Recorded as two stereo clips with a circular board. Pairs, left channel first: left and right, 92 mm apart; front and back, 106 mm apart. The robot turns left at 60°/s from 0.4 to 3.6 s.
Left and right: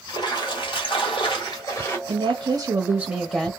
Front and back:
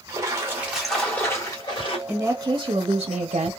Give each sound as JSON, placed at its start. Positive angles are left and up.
{"t": 0.1, "sound": "a splash", "azimuth_deg": 115, "distance_m": 1.1}
{"t": 2.1, "sound": "a woman speaking", "azimuth_deg": -95, "distance_m": 0.6}